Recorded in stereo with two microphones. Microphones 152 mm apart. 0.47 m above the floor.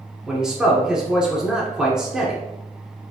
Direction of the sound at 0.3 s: 5° right (ahead or behind).